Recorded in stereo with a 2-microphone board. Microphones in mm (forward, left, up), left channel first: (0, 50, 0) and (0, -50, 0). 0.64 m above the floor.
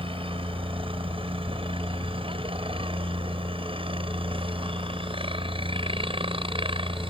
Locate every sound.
0.0 s a helicopter: 65° right (ahead or behind); by 7.1 s 60° right (ahead or behind)